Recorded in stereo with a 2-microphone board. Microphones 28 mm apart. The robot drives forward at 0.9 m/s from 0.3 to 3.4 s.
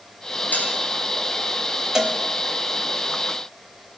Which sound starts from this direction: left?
Dishes clattering, at 0.5 s.